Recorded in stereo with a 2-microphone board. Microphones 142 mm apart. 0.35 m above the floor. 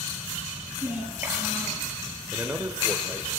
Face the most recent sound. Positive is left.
turn(degrees=-20)  # may be behind; listen again after turning